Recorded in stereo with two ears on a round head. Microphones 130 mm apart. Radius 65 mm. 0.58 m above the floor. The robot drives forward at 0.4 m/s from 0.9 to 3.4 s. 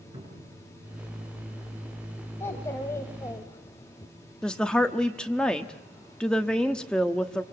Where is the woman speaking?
5° left (ahead or behind), 1.0 m.